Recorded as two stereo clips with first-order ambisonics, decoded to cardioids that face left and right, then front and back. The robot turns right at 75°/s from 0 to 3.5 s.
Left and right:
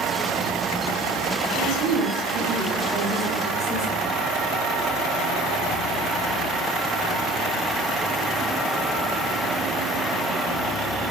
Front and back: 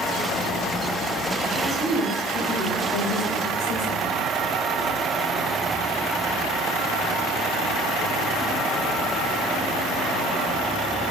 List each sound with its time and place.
1.5 s a woman speaking: 110° right, 4 m; by 4.1 s 40° left, 4 m